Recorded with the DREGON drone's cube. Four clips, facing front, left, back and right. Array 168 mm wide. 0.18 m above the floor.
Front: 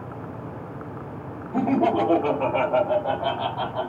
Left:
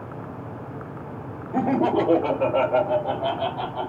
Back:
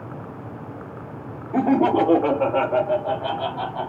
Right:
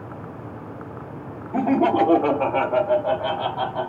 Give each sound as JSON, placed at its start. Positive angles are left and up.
{"t": 1.5, "sound": "laughter", "azimuth_deg": -145, "distance_m": 1.2}